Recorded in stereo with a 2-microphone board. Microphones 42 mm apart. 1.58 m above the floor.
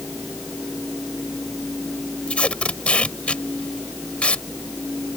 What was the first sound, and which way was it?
Tape being pulled, 30° left (ahead or behind).